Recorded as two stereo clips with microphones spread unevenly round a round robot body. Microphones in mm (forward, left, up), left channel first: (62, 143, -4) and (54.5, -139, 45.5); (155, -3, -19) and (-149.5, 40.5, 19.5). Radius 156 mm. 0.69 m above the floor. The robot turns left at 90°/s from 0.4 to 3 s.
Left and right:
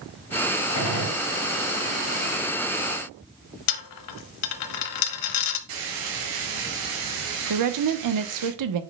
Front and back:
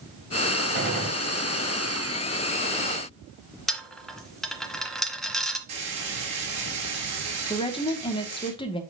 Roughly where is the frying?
Behind right.